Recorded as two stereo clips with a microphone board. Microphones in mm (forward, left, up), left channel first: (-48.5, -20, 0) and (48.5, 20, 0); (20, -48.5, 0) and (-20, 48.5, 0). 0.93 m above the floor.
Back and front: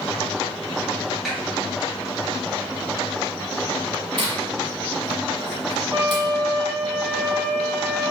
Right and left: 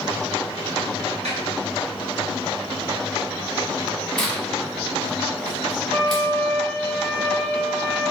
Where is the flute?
10° right, 0.8 m.